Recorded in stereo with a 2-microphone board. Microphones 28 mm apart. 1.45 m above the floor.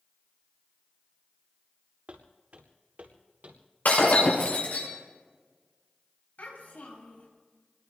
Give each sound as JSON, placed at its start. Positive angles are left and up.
{"t": 2.1, "sound": "footsteps", "side_deg": -55, "distance_m": 4.0}
{"t": 3.9, "sound": "breaking glass", "side_deg": 75, "distance_m": 7.5}
{"t": 6.4, "sound": "a child speaking", "side_deg": 80, "distance_m": 6.5}